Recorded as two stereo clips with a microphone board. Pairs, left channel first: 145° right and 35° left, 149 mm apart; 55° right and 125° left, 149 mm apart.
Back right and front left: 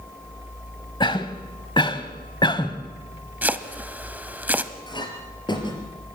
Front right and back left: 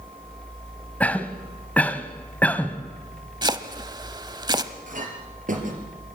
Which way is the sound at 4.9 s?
155° left.